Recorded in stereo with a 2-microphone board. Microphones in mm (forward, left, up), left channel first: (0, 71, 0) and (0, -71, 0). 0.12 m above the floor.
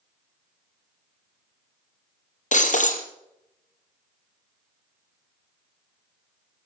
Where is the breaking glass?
60° left (ahead or behind), 2 m.